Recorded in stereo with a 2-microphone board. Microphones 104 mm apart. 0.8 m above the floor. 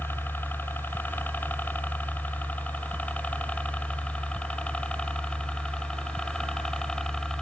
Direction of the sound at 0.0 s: 20° left (ahead or behind).